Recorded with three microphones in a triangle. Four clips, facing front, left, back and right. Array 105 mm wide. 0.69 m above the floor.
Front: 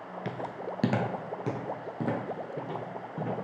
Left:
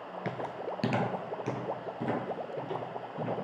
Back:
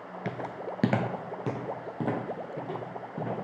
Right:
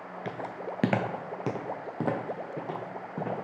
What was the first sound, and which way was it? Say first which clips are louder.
Footsteps: even, back 1 dB; 160° left.